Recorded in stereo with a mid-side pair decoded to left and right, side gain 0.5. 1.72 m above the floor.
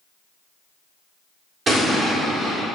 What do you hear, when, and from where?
1.7 s an explosion: 45° right, 1.0 m